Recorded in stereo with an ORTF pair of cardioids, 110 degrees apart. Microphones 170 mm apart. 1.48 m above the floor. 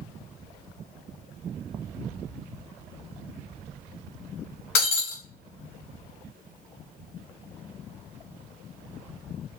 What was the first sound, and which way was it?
Breaking glass, 55° left.